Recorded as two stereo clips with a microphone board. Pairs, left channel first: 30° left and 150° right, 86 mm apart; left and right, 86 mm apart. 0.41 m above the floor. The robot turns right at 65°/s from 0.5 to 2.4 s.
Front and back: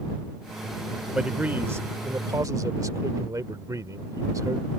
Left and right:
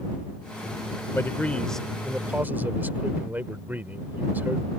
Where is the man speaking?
130° left; by 4.7 s 145° right.